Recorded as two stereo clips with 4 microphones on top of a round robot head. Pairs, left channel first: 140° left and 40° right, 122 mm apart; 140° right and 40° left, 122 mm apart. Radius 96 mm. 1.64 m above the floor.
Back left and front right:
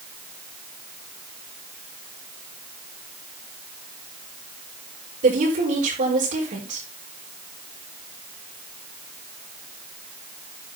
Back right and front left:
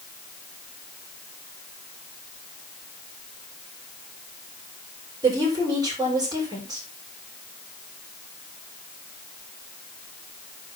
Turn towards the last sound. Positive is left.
turn(degrees=-20)